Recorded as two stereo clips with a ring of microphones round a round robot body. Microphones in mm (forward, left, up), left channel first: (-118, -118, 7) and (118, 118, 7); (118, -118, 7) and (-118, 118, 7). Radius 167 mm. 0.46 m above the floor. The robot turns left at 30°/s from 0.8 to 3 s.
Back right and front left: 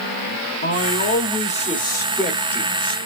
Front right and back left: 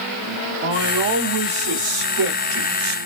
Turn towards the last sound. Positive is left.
turn(degrees=115)